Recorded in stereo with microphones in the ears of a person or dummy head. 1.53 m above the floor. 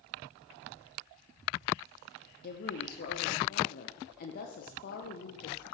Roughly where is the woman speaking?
Left.